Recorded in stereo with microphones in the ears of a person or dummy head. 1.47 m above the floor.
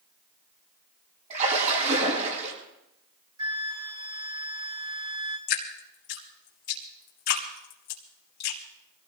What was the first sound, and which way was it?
A splash, 45° right (ahead or behind).